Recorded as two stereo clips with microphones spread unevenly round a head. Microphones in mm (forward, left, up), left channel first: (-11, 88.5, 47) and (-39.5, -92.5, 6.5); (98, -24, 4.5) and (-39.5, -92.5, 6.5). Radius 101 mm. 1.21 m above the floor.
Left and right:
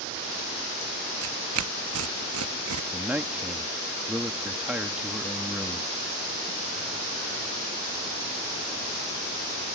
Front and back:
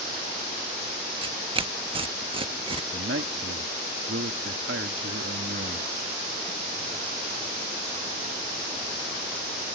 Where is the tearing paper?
100° right.